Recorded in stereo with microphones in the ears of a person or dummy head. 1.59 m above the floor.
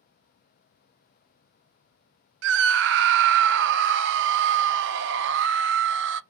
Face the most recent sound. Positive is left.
turn(degrees=-65)  # may be behind; listen again after turning